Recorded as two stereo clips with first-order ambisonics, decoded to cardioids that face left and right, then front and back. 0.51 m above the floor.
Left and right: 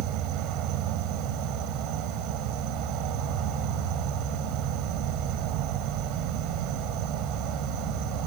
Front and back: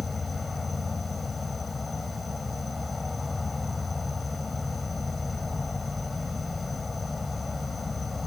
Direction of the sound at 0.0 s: 75° right.